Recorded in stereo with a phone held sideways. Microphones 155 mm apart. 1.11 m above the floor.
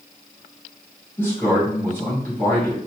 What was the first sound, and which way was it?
A man speaking, 15° left (ahead or behind).